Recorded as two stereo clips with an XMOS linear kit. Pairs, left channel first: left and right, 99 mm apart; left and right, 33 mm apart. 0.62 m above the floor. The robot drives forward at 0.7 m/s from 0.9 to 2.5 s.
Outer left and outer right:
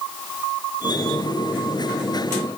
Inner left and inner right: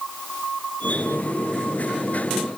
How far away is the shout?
I don't hear a shout.